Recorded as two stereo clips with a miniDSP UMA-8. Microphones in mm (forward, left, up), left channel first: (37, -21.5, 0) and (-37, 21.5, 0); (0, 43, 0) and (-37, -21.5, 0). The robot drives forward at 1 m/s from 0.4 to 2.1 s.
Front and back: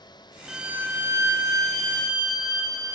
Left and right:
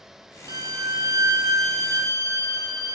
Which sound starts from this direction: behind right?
A violin, at 0.5 s.